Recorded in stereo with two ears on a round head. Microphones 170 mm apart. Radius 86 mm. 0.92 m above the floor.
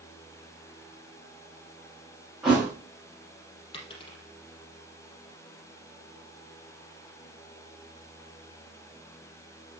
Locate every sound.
2.4 s a thud: 5° right (ahead or behind), 8.5 m
3.7 s a dropped coin: 25° left (ahead or behind), 4 m